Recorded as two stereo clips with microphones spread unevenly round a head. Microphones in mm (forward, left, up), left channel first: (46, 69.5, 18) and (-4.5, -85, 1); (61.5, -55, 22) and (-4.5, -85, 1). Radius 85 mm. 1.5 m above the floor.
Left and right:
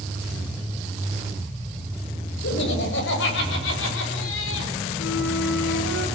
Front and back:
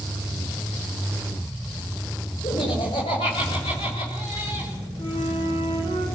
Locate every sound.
2.4 s laughter: 55° left, 7.5 m; by 4.7 s 80° left, 5.5 m
5.0 s a flute: 90° left, 5.5 m